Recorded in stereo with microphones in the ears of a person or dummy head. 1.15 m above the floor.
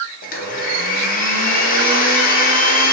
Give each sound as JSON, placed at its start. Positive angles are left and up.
{"t": 0.2, "sound": "a blender", "side_deg": 45, "distance_m": 0.6}